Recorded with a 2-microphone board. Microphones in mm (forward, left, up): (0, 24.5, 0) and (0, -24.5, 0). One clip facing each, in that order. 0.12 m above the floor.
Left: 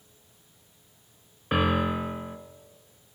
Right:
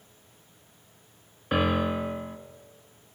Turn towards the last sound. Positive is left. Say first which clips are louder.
# even
turn(degrees=5)  # may be behind; listen again after turning